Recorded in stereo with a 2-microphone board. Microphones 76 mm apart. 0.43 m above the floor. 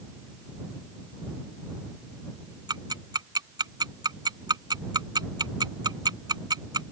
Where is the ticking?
70° right (ahead or behind).